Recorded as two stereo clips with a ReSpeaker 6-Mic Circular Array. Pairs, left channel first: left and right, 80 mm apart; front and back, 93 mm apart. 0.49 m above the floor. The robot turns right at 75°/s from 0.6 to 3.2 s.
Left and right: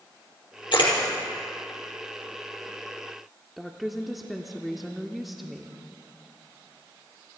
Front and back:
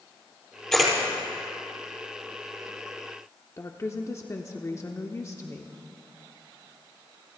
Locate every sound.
0.7 s a camera shutter: 85° left, 5 m; by 0.9 s 105° left, 5 m
3.6 s a woman speaking: 5° right, 0.8 m